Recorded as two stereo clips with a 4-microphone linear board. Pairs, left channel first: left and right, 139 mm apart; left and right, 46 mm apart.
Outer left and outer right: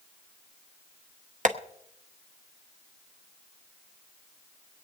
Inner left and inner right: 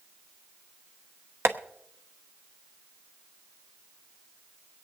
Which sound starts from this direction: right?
Tapping, at 1.4 s.